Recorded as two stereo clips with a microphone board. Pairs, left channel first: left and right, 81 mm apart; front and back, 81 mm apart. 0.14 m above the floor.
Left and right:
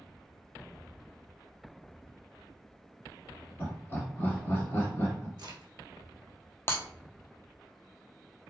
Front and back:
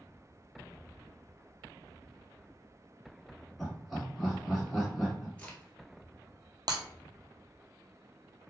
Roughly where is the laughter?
Left.